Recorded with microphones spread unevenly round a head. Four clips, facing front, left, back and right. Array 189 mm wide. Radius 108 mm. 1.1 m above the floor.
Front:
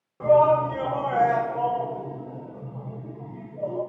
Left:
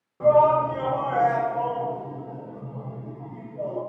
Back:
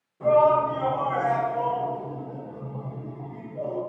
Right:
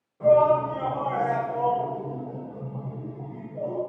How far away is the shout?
About 1.2 m.